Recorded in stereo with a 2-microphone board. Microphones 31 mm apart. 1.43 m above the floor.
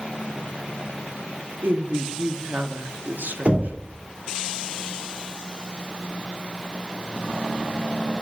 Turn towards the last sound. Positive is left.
turn(degrees=-45)  # may be behind; listen again after turning